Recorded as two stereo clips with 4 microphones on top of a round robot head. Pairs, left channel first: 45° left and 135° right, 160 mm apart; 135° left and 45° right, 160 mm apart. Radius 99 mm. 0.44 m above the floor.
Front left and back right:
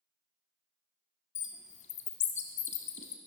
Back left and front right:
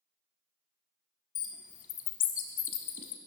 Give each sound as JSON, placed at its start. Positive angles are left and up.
{"t": 1.4, "sound": "a bird", "azimuth_deg": 95, "distance_m": 1.0}